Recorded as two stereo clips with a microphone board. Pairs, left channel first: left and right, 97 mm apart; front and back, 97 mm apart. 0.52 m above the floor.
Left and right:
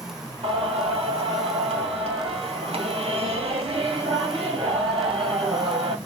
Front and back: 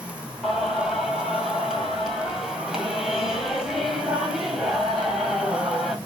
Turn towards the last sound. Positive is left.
turn(degrees=-95)